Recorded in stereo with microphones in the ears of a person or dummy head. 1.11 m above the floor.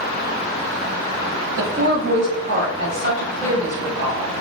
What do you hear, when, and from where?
1.6 s a woman speaking: 70° right (ahead or behind), 0.8 m; by 4.4 s 30° right (ahead or behind), 2.0 m